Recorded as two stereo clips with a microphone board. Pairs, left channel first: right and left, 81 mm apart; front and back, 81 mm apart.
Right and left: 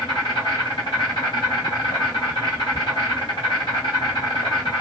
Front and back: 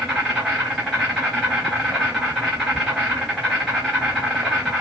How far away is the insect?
About 2 m.